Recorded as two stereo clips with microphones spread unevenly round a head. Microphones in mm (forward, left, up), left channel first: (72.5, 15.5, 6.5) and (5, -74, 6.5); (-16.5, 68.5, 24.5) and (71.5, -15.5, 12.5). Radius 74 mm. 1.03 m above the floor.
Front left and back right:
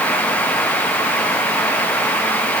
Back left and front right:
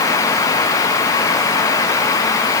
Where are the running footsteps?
I don't hear running footsteps.